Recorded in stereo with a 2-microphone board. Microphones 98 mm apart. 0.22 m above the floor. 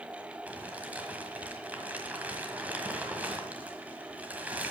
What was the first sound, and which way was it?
Crumpling, 15° right (ahead or behind).